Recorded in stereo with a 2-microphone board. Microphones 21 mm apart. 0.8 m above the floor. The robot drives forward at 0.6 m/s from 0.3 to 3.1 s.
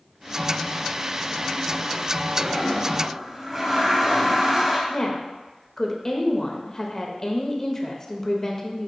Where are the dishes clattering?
No dishes clattering in this recording.